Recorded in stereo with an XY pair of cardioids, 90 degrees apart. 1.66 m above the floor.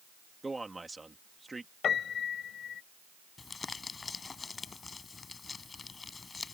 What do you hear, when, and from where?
0.4 s a man speaking: 20° right
1.8 s a piano: 65° left
3.4 s crumpling: 35° left